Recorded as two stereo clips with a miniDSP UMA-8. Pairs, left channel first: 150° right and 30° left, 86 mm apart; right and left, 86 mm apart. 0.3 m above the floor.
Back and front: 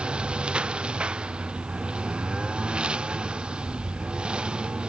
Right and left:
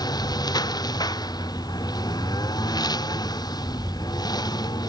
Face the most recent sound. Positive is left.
turn(degrees=-50)